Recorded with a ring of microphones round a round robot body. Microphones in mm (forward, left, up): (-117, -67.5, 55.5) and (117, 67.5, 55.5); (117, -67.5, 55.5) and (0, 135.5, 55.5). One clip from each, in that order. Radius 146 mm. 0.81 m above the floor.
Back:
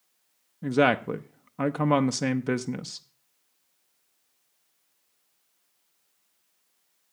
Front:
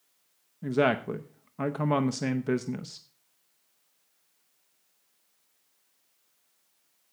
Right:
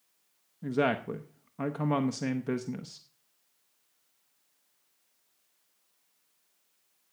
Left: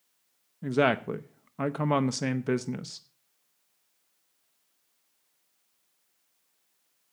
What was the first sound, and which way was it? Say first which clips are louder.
A woman speaking: back 3 dB, left 4 dB; 155° left.